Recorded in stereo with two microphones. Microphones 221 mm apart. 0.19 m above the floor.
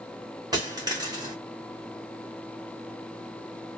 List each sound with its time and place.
0.5 s a dropped coin: 20° right (ahead or behind), 1.3 m